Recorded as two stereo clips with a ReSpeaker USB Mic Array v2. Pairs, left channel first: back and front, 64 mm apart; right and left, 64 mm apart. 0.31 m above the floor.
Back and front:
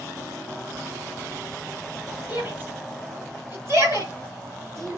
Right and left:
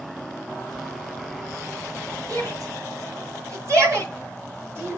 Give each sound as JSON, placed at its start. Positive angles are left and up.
{"t": 2.3, "sound": "a shout", "azimuth_deg": 60, "distance_m": 4.0}